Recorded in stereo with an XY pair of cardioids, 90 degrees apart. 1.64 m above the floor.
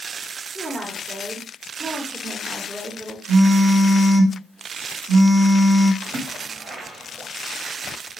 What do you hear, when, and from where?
0.6 s a woman speaking: 25° right, 1.0 m
3.3 s a phone buzzing: 35° right, 1.1 m
6.0 s a splash: 60° right, 1.6 m